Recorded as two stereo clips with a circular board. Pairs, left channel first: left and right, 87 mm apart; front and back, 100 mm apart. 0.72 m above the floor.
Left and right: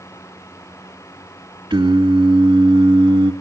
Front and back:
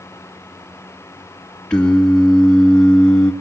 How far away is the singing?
About 2.5 m.